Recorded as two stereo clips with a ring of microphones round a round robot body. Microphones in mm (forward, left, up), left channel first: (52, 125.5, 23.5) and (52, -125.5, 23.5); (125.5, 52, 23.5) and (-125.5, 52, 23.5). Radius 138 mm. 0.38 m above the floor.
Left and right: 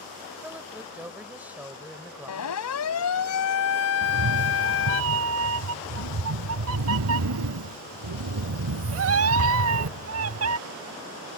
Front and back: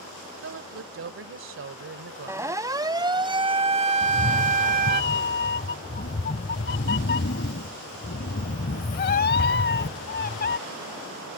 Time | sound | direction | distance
0.4 | a woman speaking | 170° right | ?
2.3 | a siren | 100° left | ?
4.0 | a cat meowing | 55° right | ?